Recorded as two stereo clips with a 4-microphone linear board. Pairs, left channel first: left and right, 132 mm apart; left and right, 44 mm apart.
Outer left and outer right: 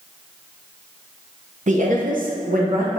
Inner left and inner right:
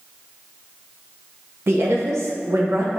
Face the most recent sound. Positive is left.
turn(degrees=-80)